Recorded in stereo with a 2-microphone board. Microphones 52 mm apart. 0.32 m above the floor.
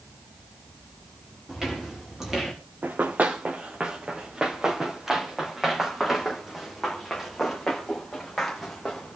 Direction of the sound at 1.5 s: 10° right (ahead or behind).